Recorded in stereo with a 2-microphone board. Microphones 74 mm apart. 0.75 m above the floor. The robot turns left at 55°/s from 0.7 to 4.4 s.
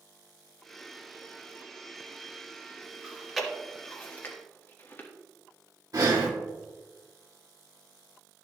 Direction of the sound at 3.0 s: 15° right (ahead or behind).